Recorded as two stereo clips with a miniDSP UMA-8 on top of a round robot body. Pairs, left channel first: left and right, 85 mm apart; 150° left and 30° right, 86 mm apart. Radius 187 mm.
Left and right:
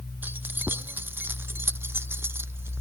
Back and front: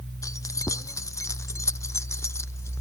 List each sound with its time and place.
0.2 s keys jangling: 160° right; by 2.8 s 155° right